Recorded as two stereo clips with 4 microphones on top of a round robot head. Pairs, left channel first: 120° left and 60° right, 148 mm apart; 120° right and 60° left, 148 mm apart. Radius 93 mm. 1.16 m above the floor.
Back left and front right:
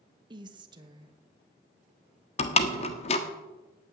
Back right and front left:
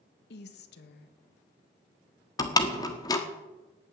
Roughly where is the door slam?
Behind.